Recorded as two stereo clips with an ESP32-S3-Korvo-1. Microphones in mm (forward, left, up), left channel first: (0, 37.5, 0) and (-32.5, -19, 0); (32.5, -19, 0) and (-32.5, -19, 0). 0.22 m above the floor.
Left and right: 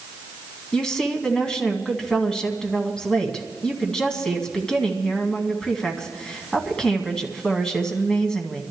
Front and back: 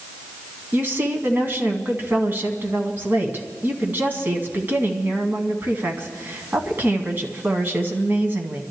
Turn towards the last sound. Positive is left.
turn(degrees=135)